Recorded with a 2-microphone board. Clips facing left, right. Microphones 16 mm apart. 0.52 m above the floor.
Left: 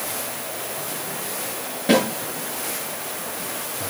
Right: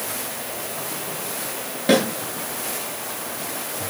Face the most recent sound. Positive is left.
turn(degrees=-20)  # may be behind; listen again after turning